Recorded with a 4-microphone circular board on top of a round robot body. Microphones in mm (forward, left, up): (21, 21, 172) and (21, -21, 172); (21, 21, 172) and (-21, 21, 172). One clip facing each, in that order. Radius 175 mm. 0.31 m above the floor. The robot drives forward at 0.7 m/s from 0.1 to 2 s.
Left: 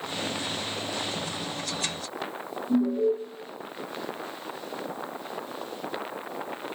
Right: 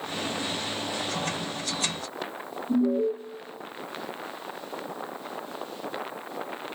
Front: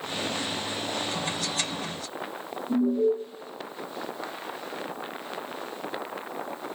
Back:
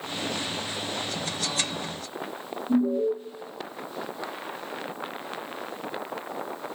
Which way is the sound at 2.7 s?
110° right.